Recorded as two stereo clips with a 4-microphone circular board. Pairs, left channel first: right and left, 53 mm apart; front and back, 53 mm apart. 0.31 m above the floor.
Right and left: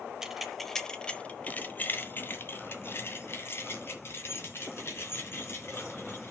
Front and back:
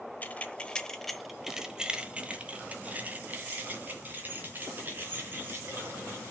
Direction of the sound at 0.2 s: 15° left.